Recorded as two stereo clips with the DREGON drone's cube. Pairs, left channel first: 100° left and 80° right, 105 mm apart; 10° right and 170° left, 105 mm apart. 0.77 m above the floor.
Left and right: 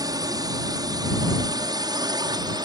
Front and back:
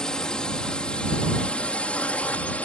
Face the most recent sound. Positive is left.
turn(degrees=-80)